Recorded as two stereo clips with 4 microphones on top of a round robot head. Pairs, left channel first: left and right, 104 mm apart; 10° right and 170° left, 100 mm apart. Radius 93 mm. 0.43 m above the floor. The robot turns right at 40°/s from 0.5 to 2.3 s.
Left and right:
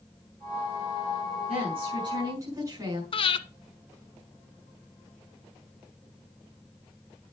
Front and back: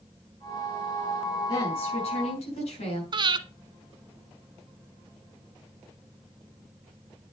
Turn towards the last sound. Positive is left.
turn(degrees=125)